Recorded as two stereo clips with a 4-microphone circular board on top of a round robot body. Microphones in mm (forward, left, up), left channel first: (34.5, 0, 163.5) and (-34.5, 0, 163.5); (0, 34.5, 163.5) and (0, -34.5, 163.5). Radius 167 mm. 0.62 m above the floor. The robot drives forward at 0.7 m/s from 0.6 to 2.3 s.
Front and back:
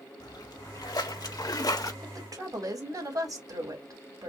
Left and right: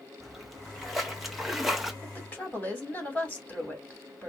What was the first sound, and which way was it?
A splash, 5° right.